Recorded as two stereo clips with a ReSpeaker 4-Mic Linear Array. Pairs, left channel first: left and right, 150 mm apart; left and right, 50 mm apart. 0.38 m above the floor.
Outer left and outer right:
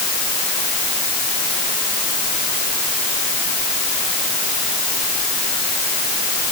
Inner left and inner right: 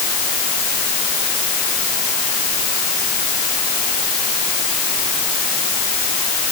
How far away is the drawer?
I don't hear a drawer.